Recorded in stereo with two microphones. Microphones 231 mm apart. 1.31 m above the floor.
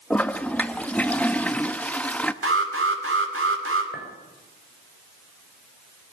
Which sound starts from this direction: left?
A clink, at 3.9 s.